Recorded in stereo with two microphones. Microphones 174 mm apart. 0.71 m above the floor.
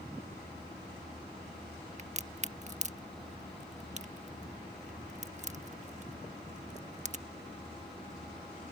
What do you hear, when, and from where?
2.0 s a crack: 45° right (ahead or behind)